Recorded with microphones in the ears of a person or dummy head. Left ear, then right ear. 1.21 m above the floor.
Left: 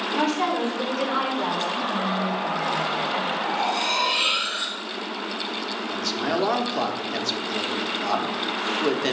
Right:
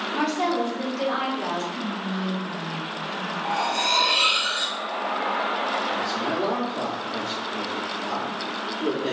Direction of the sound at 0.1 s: Centre (ahead or behind).